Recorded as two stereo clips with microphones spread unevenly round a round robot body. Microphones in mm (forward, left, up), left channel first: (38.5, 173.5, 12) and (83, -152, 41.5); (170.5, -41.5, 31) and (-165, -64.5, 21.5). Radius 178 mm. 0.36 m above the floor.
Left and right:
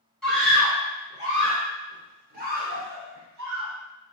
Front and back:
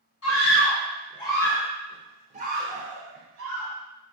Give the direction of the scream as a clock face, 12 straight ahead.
11 o'clock.